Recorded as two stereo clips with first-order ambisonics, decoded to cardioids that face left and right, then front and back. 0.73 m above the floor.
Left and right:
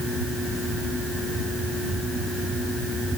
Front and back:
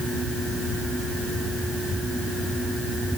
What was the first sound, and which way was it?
Only background noise.